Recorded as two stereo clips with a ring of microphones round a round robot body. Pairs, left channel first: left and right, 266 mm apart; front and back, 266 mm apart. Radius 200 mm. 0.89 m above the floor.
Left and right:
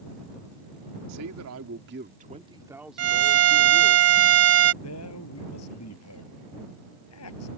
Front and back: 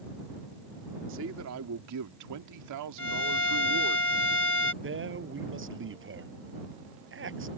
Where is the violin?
60° right.